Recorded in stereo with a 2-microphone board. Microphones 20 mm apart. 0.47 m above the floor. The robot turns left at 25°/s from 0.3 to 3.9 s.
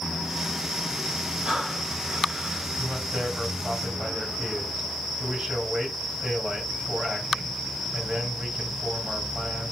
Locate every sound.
1.4 s breathing: 60° right, 2.5 m; by 2.7 s 95° right, 2.5 m
2.8 s a man speaking: 70° right (ahead or behind), 3 m; by 9.7 s 60° right (ahead or behind), 3 m